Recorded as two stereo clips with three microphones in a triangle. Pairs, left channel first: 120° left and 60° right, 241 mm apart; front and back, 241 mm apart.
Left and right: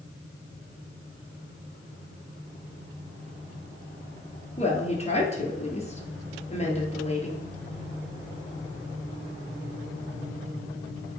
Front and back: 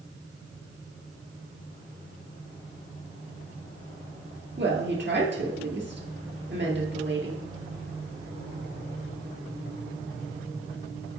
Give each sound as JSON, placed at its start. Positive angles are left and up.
{"t": 4.6, "sound": "a woman speaking", "azimuth_deg": 175, "distance_m": 2.0}